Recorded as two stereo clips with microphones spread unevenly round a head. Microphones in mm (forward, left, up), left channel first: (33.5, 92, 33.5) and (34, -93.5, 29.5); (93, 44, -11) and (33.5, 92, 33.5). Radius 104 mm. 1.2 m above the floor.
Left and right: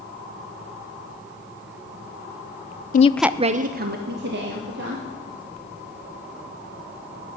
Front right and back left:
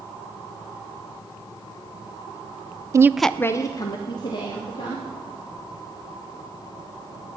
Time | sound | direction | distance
2.9 | a woman speaking | 70° left | 0.5 m